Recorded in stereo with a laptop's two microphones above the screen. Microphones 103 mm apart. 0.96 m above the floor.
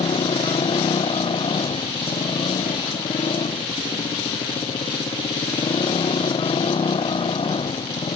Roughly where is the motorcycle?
Left.